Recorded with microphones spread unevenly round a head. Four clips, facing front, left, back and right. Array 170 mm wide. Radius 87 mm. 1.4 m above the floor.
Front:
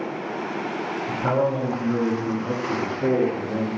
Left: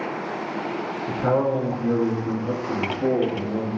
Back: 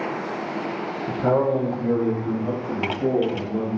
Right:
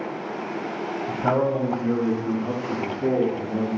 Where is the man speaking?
175° left, 0.9 m; by 3.7 s 135° left, 1.9 m.